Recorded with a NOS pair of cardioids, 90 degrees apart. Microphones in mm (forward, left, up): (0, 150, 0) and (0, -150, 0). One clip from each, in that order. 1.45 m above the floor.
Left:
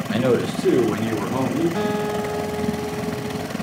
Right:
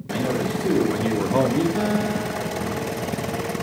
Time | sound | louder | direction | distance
0.1 | a man speaking | left 4 dB | 60° left | 1.0 m
1.8 | a guitar | left 1 dB | 20° left | 0.7 m